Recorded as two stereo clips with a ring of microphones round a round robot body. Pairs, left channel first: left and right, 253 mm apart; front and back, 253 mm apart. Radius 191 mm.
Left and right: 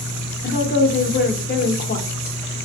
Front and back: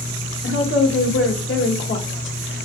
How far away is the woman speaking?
About 1.1 m.